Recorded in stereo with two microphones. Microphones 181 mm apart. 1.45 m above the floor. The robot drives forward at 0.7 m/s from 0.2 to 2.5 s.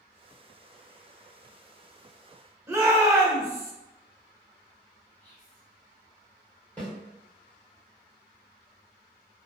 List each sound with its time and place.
2.7 s a shout: 15° right (ahead or behind), 1.2 m
5.2 s whispering: 30° left (ahead or behind), 1.3 m
6.8 s a snare drum: 10° left (ahead or behind), 1.9 m